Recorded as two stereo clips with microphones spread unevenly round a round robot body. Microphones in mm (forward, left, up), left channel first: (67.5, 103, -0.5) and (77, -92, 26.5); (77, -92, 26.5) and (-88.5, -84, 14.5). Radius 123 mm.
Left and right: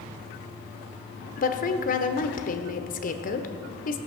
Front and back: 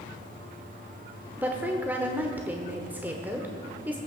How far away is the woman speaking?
About 1.1 m.